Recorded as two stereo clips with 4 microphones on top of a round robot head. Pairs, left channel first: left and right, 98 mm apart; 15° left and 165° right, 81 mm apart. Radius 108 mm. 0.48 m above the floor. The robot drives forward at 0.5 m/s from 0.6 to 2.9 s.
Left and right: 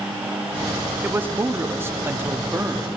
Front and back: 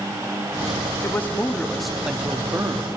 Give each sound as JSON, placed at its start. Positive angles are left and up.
{"t": 1.0, "sound": "a man speaking", "azimuth_deg": -30, "distance_m": 0.9}